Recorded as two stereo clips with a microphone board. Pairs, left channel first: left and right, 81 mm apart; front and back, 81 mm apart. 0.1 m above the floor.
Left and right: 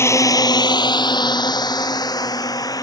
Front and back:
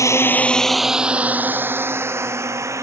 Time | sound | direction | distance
0.0 | a drone | 40° left | ?